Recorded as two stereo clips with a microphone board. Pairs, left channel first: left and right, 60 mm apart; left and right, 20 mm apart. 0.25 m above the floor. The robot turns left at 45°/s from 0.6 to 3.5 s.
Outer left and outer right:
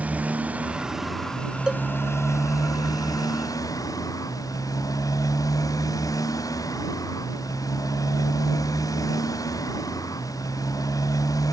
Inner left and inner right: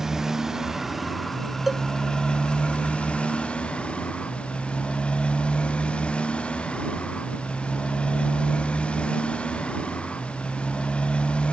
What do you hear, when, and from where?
0.0 s a motorcycle: 155° right; by 11.5 s 75° left
1.7 s a cowbell: 15° right (ahead or behind); by 1.8 s 10° right (ahead or behind)